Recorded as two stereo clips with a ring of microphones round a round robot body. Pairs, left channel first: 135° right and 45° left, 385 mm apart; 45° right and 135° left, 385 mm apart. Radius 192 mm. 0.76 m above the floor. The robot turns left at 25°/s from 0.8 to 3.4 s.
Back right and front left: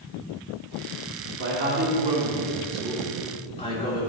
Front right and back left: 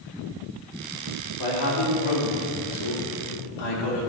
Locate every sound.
1.4 s a man speaking: 10° right, 2.5 m; by 4.1 s 60° right, 2.5 m